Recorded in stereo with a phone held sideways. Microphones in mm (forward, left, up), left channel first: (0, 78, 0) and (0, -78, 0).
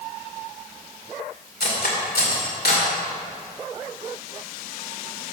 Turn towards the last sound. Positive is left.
turn(degrees=85)